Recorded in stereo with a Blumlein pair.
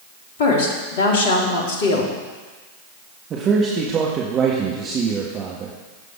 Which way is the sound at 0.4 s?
55° left.